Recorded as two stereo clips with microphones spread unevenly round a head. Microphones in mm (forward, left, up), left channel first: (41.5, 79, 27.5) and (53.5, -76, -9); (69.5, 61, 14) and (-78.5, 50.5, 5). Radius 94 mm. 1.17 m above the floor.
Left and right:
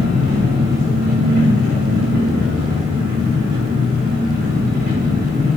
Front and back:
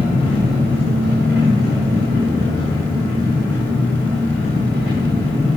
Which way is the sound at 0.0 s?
95° right.